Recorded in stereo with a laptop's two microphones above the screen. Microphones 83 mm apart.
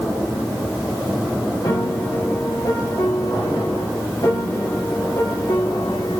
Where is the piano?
60° left (ahead or behind), 1.7 m.